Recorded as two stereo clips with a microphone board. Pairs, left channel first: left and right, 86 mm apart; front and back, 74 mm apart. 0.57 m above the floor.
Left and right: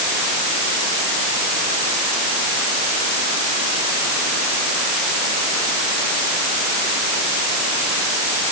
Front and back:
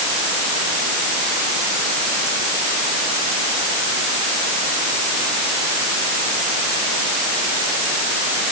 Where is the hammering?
I don't hear hammering.